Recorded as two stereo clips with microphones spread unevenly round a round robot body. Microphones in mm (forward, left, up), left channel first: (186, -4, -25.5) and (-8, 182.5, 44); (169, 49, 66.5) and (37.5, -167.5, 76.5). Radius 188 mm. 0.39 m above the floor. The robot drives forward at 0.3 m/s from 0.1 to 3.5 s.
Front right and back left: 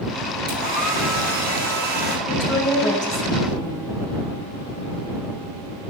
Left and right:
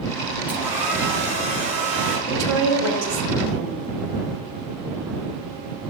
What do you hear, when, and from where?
0.5 s a hair dryer: 155° left, 4 m; by 2.2 s 160° left, 4.5 m
2.3 s a woman speaking: 130° right, 3.5 m; by 3.8 s 135° right, 3.5 m